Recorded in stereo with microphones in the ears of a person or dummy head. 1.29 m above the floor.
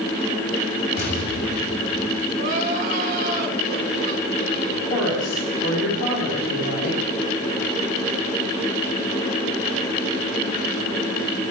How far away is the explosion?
About 3 m.